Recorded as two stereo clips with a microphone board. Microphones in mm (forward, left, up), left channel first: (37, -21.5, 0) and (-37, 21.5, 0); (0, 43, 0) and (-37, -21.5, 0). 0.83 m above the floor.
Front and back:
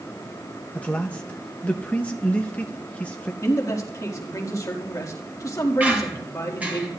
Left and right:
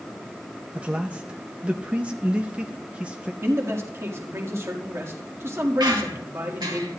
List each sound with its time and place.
0.8 s a man speaking: 80° right, 0.7 m
3.4 s a man speaking: 75° right, 1.7 m
5.8 s a squeak: 135° right, 2 m